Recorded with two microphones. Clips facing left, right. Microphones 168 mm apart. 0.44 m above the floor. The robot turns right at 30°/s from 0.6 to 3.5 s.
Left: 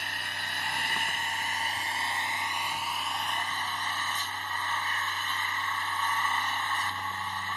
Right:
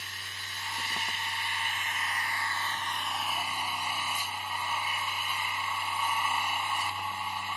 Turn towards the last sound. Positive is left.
turn(degrees=-170)